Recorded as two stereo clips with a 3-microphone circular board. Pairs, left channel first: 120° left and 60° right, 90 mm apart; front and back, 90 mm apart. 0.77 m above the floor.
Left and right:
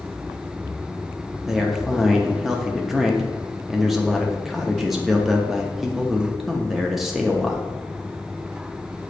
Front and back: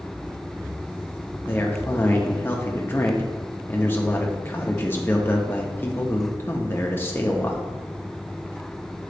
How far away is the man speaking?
About 0.7 m.